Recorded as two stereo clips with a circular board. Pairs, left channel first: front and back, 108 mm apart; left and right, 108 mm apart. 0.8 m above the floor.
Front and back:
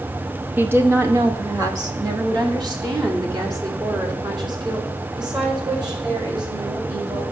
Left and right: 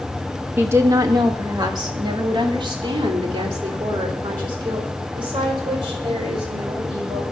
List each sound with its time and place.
0.6 s a woman speaking: 130° right, 0.9 m; by 7.2 s 135° right, 5 m